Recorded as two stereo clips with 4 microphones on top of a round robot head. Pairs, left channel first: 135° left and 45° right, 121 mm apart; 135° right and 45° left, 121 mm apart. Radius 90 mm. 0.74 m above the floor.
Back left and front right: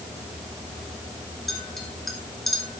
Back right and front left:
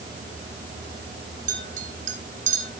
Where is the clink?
45° left, 3 m.